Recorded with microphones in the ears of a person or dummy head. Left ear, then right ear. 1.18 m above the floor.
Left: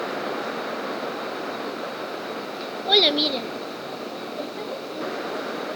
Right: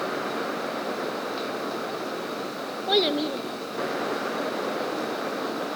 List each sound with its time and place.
2.9 s a child speaking: 25° left (ahead or behind), 1.0 m